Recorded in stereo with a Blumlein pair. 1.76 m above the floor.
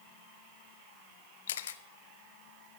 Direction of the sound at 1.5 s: 60° left.